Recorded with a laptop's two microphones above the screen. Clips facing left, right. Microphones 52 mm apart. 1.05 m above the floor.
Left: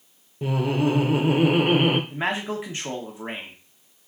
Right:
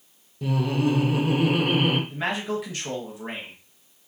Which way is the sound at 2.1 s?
25° left (ahead or behind).